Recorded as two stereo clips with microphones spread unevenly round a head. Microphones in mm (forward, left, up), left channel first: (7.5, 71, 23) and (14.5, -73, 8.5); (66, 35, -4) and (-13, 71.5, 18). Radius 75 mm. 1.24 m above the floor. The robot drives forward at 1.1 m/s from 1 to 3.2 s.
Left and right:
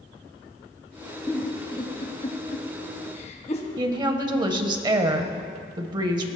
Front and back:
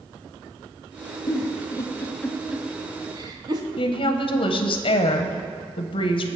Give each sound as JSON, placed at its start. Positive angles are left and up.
{"t": 1.3, "sound": "a giggle", "azimuth_deg": 20, "distance_m": 1.6}
{"t": 3.8, "sound": "a woman speaking", "azimuth_deg": -30, "distance_m": 0.8}